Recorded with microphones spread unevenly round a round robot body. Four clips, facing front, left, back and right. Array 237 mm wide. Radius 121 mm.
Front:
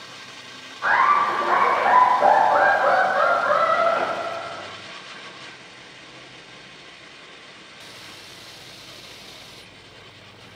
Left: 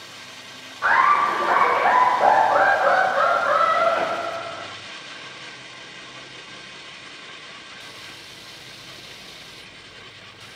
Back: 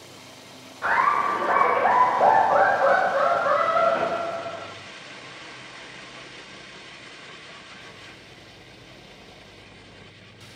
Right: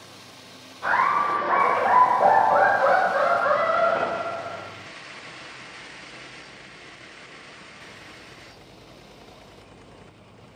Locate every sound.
0.8 s laughter: 115° left, 1.1 m; by 4.7 s 90° right, 1.4 m